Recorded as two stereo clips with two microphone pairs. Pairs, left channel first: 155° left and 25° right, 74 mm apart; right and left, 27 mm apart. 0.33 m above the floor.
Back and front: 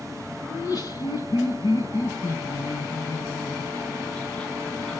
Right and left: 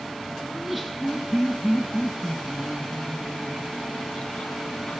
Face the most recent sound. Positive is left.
turn(degrees=-125)